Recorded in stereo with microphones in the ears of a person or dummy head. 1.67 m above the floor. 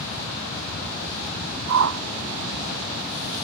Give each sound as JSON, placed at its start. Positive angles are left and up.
{"t": 1.7, "sound": "a whoosh", "side_deg": -65}